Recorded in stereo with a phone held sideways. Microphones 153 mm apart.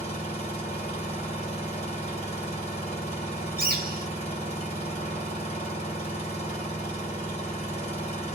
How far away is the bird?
About 1.5 m.